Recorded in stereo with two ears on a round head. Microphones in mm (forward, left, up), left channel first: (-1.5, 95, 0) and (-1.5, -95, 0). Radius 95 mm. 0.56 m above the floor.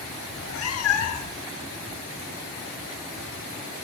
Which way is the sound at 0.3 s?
70° left (ahead or behind).